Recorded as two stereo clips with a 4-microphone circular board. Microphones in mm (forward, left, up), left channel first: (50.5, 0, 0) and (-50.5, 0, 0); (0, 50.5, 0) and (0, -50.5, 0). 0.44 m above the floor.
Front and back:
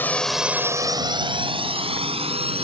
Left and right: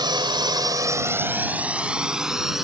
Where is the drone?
65° right; by 2.6 s 175° right.